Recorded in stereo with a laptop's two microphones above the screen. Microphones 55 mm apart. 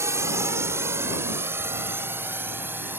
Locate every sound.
0.0 s a drone: 65° right (ahead or behind); by 3.0 s 40° right (ahead or behind)